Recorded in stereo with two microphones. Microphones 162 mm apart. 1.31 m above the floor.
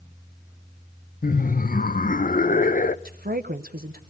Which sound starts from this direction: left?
Laughter, at 1.2 s.